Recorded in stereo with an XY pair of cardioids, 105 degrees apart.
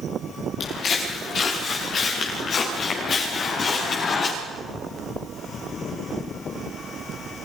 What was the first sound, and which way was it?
Footsteps, 60° left.